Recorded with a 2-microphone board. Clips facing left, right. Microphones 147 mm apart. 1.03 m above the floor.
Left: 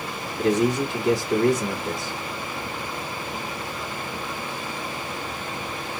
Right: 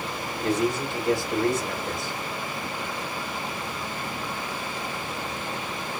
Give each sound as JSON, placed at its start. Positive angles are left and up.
{"t": 0.4, "sound": "a man speaking", "side_deg": 80, "distance_m": 2.5}